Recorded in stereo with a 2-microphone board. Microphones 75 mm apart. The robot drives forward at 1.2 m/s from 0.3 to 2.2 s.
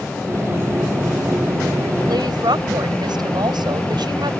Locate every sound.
2.1 s a woman speaking: 75° right (ahead or behind); by 4.3 s 80° right